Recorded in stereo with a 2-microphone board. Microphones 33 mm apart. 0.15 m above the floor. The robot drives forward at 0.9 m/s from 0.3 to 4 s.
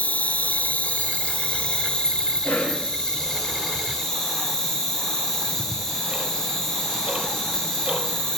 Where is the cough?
70° left (ahead or behind), 4.5 m.